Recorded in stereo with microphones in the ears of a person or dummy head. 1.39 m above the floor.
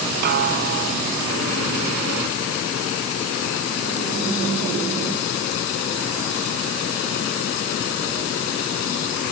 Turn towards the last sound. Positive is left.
turn(degrees=-50)  # may be behind; listen again after turning